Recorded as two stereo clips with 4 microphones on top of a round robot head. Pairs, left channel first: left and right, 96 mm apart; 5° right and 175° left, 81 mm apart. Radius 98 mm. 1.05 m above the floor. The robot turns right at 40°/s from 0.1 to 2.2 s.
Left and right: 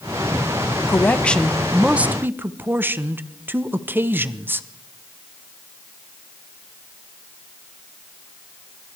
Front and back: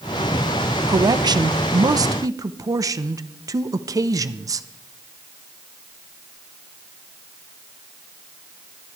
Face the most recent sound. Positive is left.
turn(degrees=-155)